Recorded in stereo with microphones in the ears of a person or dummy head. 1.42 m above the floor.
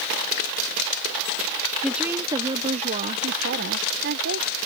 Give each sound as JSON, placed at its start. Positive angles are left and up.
{"t": 1.8, "sound": "a woman speaking", "side_deg": -5}